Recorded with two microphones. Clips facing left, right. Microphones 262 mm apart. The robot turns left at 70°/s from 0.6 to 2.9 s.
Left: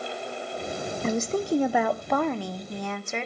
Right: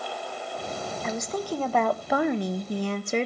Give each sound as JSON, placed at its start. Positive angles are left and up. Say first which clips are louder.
{"t": 1.0, "sound": "a woman speaking", "louder": "left 5 dB", "azimuth_deg": 65, "distance_m": 0.6}